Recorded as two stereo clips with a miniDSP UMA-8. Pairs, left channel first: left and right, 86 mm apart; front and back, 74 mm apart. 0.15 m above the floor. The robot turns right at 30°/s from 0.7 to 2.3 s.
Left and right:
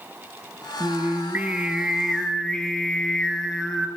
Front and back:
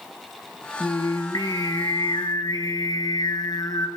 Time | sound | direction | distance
0.8 | singing | 35° right | 2.5 m